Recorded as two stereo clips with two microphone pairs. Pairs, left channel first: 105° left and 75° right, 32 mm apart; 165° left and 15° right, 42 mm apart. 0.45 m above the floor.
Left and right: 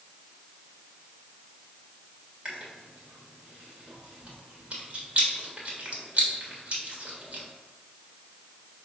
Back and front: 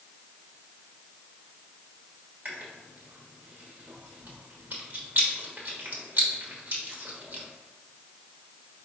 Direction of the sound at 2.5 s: 50° right.